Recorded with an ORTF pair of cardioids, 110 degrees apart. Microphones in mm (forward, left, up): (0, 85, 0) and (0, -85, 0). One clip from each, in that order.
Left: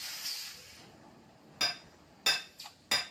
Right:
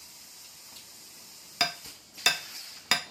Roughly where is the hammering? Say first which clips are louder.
Right 4 dB; ahead right.